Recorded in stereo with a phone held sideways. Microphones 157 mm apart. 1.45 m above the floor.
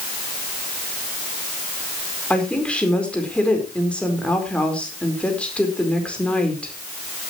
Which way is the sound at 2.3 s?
5° left (ahead or behind).